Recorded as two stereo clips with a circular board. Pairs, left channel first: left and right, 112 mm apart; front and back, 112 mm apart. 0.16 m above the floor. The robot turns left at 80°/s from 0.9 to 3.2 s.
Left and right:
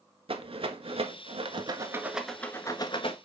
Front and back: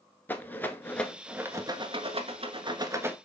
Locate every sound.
0.3 s a rattle: 70° right, 1.0 m; by 3.1 s 110° left, 1.0 m